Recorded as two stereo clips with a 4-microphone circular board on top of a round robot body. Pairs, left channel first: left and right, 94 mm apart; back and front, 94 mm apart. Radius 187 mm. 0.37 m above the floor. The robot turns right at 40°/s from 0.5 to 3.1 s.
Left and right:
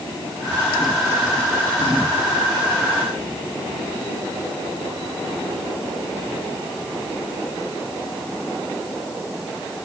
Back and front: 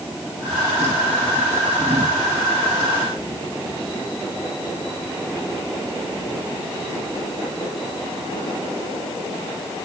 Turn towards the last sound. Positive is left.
No sound to turn to.